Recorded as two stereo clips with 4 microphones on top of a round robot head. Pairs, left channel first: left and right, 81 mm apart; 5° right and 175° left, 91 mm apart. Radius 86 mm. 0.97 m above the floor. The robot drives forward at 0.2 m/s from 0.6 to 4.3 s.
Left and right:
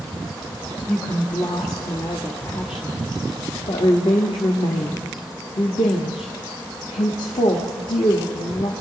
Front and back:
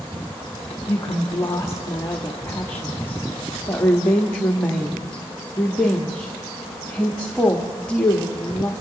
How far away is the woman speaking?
About 1.8 m.